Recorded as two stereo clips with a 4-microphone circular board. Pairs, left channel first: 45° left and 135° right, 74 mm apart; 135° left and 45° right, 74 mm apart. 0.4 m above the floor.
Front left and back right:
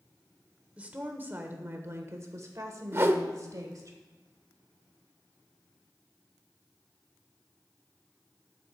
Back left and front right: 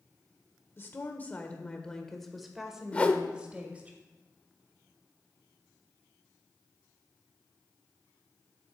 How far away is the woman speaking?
About 1.2 m.